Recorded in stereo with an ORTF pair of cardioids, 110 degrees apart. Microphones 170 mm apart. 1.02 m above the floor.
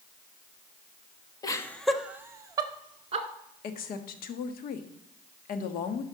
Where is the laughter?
25° left, 1.4 m; by 3.3 s 35° right, 2.5 m.